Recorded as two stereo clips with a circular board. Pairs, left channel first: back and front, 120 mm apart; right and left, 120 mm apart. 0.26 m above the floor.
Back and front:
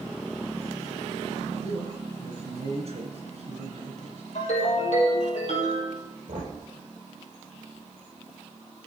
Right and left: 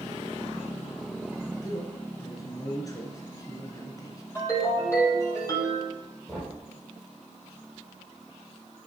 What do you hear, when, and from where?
1.6 s a man speaking: 30° right, 2.5 m
4.3 s a ringtone: 155° right, 4 m
6.3 s knocking: straight ahead, 5 m